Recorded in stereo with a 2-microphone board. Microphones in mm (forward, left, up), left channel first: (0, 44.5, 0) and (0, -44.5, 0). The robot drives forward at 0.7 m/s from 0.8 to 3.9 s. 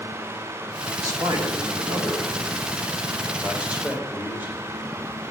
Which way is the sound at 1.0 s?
40° right (ahead or behind).